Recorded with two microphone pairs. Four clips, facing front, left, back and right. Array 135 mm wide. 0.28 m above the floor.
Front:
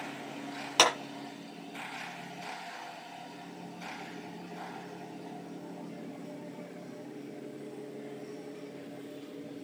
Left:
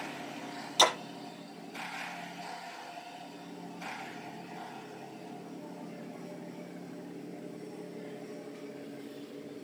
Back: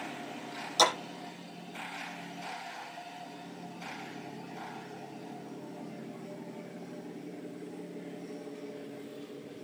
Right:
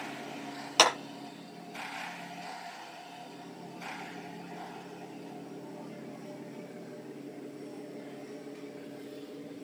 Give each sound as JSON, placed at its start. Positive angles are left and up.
{"t": 0.8, "sound": "a clap", "azimuth_deg": -40, "distance_m": 6.0}